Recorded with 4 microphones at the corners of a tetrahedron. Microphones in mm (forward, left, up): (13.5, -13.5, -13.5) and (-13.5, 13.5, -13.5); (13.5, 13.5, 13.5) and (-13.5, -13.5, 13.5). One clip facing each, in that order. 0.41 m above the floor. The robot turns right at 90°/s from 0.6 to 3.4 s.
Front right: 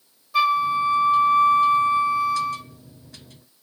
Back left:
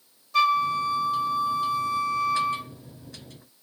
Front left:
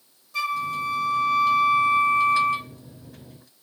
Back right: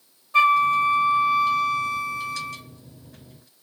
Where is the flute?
120° right, 0.7 m; by 2.7 s 65° left, 0.7 m.